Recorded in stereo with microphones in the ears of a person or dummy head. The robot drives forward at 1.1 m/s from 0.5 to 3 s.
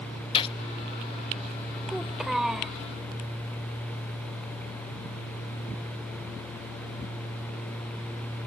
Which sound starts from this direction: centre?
A child speaking, at 1.9 s.